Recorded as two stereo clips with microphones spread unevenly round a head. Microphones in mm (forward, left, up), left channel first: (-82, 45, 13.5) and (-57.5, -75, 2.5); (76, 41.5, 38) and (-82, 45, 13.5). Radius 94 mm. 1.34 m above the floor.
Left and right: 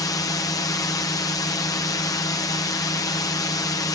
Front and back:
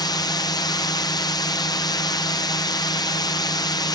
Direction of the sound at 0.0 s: 55° left.